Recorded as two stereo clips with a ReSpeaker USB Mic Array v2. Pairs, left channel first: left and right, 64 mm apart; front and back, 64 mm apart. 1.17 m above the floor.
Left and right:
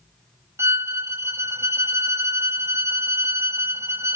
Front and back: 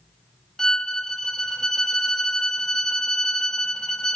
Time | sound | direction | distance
0.6 | a violin | 75° right | 0.8 m